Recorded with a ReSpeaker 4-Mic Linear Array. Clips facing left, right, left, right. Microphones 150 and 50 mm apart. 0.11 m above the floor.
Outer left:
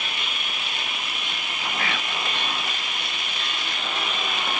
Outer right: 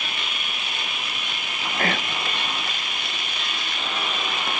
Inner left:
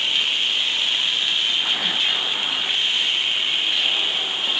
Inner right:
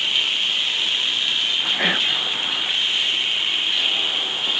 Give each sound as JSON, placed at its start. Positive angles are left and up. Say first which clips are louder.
{"t": 1.8, "sound": "whispering", "louder": "outer right 7 dB, inner right 2 dB", "side_deg": -45}